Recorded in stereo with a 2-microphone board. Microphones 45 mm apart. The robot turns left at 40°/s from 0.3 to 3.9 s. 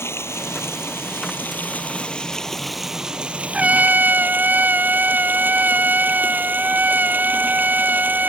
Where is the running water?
95° left; by 8.3 s 50° right.